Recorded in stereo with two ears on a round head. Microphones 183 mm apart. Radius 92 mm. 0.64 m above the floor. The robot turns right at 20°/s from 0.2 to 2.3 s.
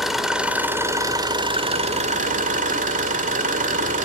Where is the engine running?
Straight behind, 1.9 m; by 4.1 s 135° right, 1.9 m.